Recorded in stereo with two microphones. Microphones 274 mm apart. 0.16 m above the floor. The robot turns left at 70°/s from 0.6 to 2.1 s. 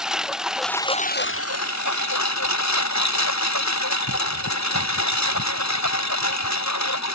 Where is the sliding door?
I don't hear a sliding door.